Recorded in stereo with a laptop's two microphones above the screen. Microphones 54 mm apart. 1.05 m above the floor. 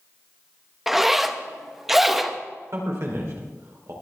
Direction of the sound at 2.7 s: 55° right (ahead or behind).